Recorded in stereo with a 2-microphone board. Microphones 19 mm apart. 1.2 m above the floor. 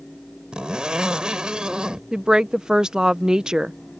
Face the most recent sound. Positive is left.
turn(degrees=-45)  # may be behind; listen again after turning